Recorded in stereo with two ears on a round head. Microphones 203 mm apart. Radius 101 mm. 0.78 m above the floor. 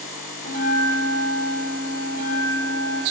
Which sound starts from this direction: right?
A bell, at 0.5 s.